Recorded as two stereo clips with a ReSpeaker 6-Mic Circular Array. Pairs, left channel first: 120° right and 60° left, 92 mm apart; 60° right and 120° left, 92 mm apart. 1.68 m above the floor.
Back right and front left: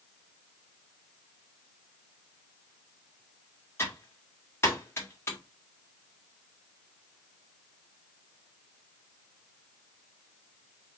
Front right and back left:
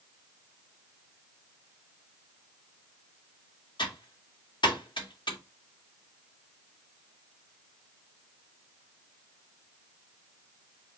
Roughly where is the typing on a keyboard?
Ahead right.